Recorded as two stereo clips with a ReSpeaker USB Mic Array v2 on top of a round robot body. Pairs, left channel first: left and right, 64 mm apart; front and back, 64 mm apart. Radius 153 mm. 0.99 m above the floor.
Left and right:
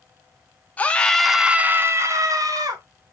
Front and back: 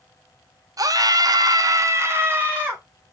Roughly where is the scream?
Behind left.